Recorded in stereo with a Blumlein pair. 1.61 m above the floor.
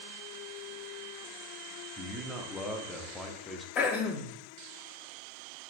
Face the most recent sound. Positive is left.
turn(degrees=35)